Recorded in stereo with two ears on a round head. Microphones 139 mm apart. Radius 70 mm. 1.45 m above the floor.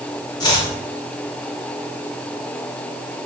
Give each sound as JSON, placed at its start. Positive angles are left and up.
{"t": 0.4, "sound": "chopping", "side_deg": 25, "distance_m": 2.0}